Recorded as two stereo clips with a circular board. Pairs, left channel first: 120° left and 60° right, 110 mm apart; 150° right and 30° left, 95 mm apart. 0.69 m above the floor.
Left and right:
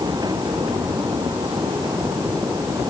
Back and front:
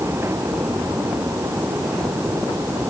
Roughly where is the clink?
No clink in this recording.